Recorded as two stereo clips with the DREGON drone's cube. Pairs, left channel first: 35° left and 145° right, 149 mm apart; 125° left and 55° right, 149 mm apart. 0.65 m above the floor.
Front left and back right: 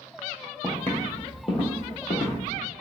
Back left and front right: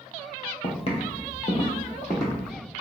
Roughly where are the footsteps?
Behind left.